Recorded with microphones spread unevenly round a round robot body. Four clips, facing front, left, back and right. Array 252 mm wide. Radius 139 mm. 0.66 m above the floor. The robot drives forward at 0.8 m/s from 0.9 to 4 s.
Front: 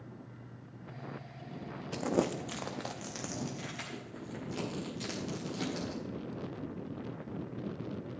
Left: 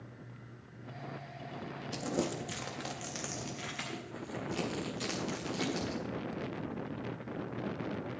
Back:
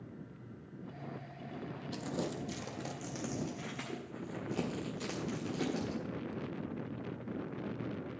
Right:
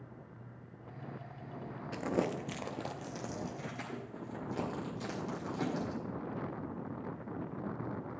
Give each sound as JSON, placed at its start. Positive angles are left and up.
{"t": 1.9, "sound": "crumpling", "azimuth_deg": -5, "distance_m": 0.8}